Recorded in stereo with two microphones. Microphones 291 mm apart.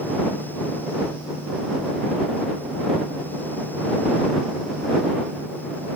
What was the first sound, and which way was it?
Only background noise.